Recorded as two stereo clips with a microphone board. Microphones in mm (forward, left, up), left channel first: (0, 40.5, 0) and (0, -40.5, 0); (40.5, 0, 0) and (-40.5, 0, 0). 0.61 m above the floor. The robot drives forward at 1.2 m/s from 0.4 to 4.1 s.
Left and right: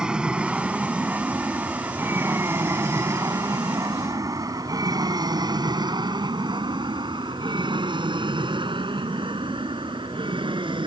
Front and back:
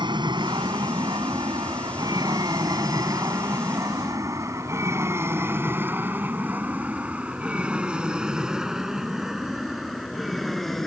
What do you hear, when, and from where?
0.0 s an aircraft: 170° right; by 10.9 s 90° right